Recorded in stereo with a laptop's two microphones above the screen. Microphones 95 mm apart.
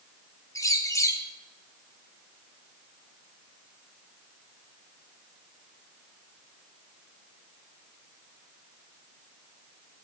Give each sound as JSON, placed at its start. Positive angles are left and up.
{"t": 0.6, "sound": "a bird", "side_deg": 35, "distance_m": 0.7}